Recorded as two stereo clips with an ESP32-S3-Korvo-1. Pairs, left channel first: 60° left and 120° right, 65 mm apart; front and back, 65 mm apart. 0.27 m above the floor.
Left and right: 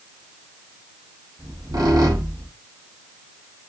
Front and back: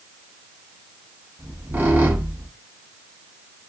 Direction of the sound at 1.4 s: 115° right.